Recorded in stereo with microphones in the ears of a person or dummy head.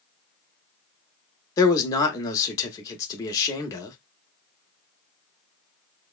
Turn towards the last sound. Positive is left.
turn(degrees=20)  # may be behind; listen again after turning